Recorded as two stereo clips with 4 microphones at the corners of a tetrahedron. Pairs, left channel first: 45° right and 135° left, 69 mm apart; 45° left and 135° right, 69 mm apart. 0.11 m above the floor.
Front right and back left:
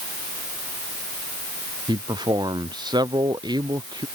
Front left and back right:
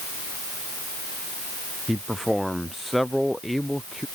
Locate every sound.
1.9 s a man speaking: 135° left